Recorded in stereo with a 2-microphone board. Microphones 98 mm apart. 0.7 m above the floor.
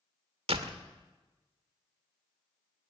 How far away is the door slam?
About 1.5 m.